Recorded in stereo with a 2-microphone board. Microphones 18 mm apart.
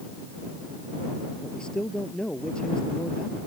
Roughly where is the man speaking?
Left.